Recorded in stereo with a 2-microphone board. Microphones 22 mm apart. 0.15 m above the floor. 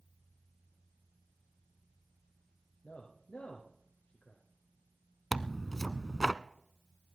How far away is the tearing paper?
About 0.5 m.